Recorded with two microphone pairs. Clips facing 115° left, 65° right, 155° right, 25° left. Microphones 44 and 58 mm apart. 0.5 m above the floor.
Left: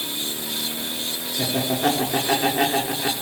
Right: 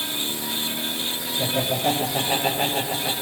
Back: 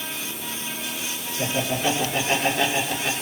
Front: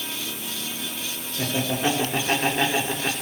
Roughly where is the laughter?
Left.